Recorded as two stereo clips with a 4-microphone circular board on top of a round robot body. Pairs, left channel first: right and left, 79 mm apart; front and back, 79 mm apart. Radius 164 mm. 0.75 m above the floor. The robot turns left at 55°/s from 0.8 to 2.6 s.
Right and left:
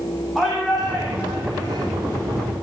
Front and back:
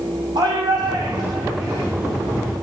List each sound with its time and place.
0.3 s a shout: straight behind, 9.5 m; by 1.9 s 125° left, 9.5 m